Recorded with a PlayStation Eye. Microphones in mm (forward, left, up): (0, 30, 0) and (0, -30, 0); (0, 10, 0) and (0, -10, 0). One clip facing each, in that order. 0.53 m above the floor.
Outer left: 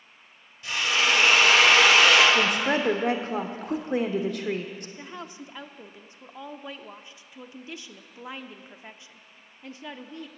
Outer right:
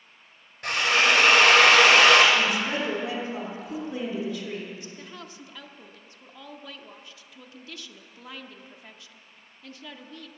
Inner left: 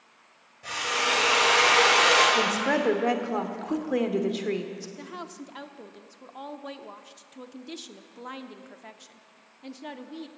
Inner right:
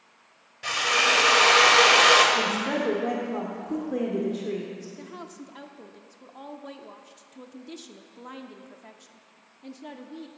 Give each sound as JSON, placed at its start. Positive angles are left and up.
{"t": 0.6, "sound": "a drill", "side_deg": -60, "distance_m": 2.5}
{"t": 2.4, "sound": "a woman speaking", "side_deg": 50, "distance_m": 1.1}
{"t": 5.0, "sound": "a woman speaking", "side_deg": 20, "distance_m": 0.7}